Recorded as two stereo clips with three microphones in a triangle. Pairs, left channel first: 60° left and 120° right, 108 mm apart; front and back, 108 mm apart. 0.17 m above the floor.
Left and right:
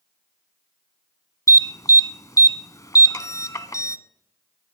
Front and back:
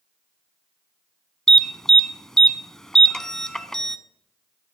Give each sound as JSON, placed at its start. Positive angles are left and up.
{"t": 1.5, "sound": "an alarm", "azimuth_deg": 80, "distance_m": 1.0}